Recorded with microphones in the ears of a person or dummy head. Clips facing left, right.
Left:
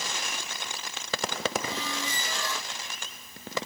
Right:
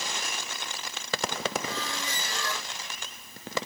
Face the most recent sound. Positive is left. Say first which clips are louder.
# left 1 dB
turn(degrees=15)  # may be behind; listen again after turning